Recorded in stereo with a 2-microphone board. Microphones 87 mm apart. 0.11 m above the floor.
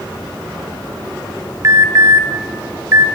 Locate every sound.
1.6 s an alarm: 35° right (ahead or behind), 1.4 m